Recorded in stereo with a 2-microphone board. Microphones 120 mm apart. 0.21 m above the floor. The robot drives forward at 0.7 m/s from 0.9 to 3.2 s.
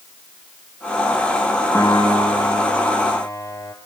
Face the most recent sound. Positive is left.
turn(degrees=30)  # may be behind; listen again after turning